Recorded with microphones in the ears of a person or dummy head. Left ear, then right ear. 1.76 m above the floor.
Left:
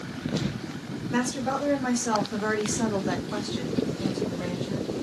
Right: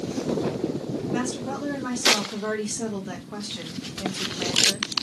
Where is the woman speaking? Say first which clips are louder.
Left 4 dB; 65° left (ahead or behind), 1.6 m; by 4.9 s 50° right (ahead or behind), 0.9 m.